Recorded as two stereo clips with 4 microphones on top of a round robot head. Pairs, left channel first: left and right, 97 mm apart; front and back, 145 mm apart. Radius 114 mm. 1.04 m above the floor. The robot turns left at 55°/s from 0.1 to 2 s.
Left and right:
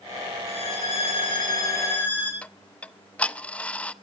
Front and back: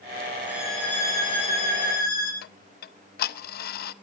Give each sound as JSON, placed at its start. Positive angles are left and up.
{"t": 0.5, "sound": "a violin", "azimuth_deg": 105, "distance_m": 9.5}
{"t": 2.4, "sound": "ticking", "azimuth_deg": 10, "distance_m": 0.7}